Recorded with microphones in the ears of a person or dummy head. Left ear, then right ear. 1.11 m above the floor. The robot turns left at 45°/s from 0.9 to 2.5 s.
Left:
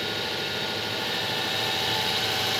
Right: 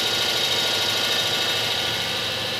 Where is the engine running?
130° right, 2.5 m; by 2.6 s 155° left, 2.5 m.